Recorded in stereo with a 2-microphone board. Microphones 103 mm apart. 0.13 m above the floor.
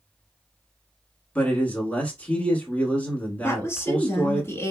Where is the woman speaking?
25° left (ahead or behind), 1.3 m.